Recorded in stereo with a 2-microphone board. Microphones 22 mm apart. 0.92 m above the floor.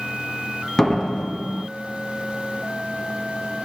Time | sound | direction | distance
0.8 | a door slam | 20° left (ahead or behind) | 1.0 m